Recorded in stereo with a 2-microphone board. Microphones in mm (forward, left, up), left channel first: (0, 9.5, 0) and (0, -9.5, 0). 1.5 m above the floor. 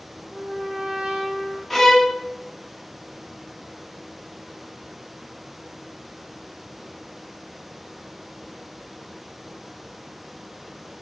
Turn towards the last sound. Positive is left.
turn(degrees=5)  # may be behind; listen again after turning